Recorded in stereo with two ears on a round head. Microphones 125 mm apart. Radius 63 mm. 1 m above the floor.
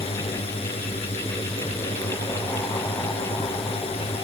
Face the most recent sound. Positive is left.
turn(degrees=40)  # may be behind; listen again after turning